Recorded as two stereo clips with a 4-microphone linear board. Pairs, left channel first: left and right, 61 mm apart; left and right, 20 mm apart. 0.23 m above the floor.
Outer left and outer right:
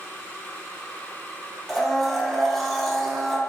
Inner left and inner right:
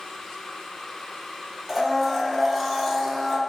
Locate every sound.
1.7 s a blender: centre (ahead or behind), 0.7 m